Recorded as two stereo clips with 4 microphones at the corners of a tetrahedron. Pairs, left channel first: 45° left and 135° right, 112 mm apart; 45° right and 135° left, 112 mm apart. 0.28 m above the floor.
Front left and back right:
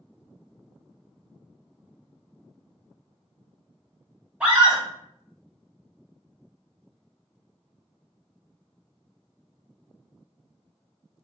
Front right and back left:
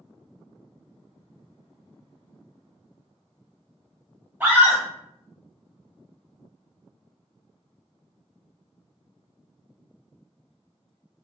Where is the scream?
165° left, 1.1 m.